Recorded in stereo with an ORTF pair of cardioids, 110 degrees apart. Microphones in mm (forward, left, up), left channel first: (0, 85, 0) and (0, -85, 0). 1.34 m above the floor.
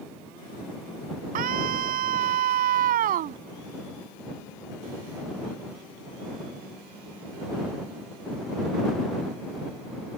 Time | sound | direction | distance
1.4 | a scream | 65° right | ?